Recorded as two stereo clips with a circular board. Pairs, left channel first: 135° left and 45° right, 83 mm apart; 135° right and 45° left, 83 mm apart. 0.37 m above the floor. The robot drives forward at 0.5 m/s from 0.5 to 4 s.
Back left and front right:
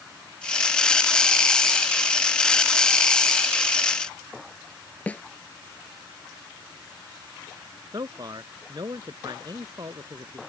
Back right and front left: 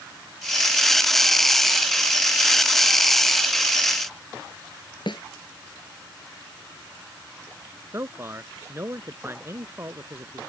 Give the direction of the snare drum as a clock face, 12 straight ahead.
5 o'clock.